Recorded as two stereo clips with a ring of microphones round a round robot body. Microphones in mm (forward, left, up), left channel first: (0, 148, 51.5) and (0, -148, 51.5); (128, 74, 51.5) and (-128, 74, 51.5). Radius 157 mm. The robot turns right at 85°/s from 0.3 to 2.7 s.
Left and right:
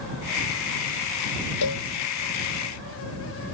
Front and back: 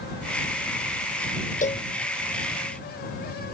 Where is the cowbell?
60° left; by 1.9 s 80° left.